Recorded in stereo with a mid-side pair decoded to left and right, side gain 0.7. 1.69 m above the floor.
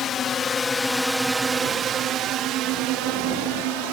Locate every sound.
0.0 s a drone: 45° left; by 3.9 s 75° right